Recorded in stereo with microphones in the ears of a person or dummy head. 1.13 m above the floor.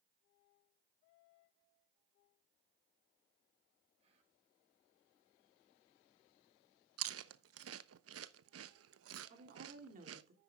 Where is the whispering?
35° right (ahead or behind), 6.5 m.